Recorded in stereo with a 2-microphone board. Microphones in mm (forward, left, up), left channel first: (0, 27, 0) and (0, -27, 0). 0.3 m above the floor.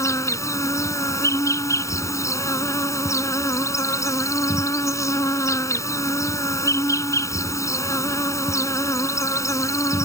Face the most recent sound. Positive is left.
turn(degrees=70)  # may be behind; listen again after turning